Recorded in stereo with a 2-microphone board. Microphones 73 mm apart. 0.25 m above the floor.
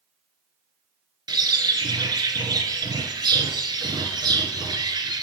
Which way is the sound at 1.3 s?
75° right (ahead or behind).